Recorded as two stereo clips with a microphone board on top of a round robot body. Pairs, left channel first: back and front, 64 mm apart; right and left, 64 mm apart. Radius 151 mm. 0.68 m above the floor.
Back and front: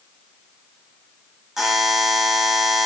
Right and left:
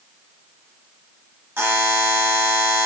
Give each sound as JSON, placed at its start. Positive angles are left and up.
{"t": 1.6, "sound": "a buzzer", "azimuth_deg": 80, "distance_m": 1.2}